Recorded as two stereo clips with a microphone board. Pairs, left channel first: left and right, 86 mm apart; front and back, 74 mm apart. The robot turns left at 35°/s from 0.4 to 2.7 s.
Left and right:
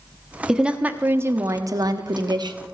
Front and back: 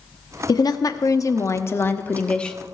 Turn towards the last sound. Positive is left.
turn(degrees=-85)